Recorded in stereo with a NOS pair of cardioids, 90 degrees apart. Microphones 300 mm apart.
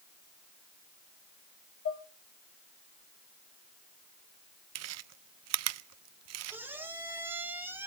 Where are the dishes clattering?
45° left, 2.0 m.